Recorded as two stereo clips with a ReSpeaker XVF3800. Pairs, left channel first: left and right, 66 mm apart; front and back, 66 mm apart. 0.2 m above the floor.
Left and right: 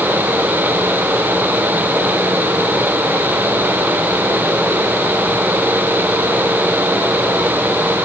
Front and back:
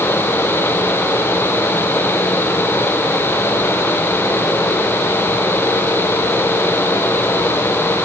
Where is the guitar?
No guitar in this recording.